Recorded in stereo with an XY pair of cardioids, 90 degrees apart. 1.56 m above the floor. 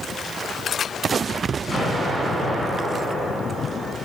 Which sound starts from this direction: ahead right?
An explosion, at 1.7 s.